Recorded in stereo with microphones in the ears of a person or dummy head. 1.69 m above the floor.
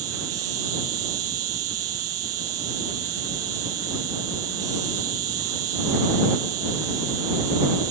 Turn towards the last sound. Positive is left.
turn(degrees=-20)  # may be behind; listen again after turning